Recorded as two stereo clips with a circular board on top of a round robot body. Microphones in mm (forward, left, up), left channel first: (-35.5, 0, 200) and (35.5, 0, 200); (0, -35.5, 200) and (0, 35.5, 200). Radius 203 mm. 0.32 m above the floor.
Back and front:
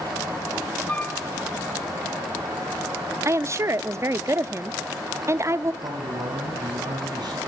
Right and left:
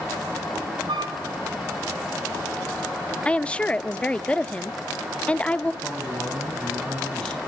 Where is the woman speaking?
20° right, 1.2 m.